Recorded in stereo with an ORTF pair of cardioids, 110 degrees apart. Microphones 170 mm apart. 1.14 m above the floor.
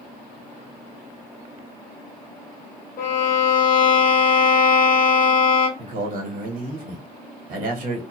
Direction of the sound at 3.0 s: 55° left.